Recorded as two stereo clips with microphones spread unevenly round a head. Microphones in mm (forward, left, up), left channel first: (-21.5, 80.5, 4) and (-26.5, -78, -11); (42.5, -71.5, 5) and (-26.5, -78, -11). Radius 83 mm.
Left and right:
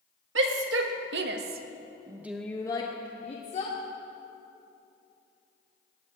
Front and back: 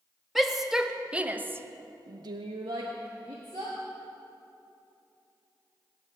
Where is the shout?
90° right, 1.3 m; by 3.8 s 135° left, 1.3 m.